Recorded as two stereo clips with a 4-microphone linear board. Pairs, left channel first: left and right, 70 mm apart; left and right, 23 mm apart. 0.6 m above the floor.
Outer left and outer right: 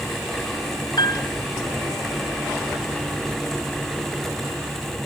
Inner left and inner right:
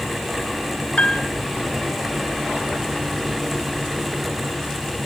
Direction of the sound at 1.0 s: 75° left (ahead or behind).